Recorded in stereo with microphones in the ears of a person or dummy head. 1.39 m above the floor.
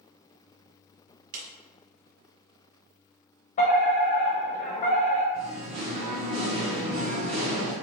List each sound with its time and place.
1.3 s a clap: 45° right (ahead or behind), 1.0 m
3.6 s a fire alarm: 35° left (ahead or behind), 1.1 m
5.3 s singing: 30° right (ahead or behind), 1.5 m